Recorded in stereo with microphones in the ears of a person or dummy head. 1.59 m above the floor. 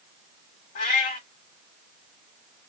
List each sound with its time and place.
0.8 s a cat meowing: 40° left (ahead or behind), 1.6 m